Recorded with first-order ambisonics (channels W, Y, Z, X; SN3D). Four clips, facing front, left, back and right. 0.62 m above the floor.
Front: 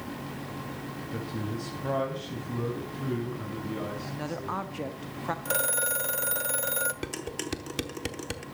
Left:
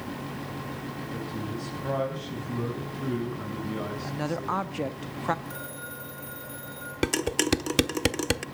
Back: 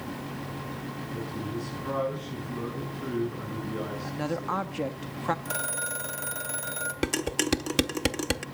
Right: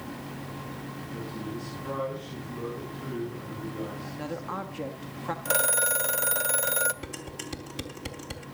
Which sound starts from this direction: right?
A phone ringing, at 5.5 s.